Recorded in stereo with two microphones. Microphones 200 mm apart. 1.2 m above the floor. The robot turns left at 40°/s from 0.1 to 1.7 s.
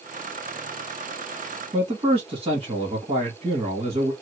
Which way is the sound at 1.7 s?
30° right (ahead or behind).